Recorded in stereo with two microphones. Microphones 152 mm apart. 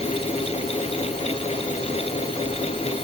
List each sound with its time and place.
Only background noise.